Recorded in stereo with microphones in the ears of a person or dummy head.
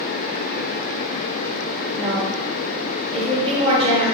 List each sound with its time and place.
2.0 s a woman speaking: 35° right (ahead or behind), 1.3 m